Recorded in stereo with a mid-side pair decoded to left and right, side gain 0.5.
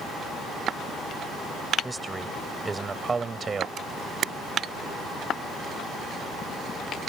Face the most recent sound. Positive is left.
turn(degrees=-50)